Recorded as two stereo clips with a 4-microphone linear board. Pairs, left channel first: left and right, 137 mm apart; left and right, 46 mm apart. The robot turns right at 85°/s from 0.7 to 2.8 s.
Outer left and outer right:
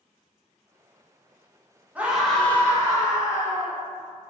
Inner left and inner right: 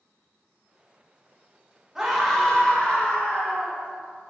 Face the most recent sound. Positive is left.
turn(degrees=20)  # may be behind; listen again after turning